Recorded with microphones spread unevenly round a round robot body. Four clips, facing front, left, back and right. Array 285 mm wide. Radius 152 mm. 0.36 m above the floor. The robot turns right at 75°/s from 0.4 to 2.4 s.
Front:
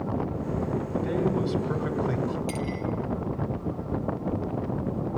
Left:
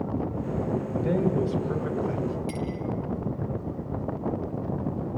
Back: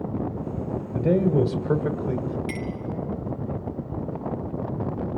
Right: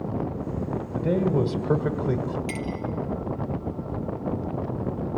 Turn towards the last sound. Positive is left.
turn(degrees=-110)